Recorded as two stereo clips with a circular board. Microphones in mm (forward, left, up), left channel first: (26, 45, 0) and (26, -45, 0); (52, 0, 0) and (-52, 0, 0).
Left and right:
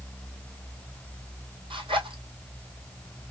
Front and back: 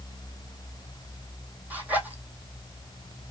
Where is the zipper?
105° right, 1.4 m.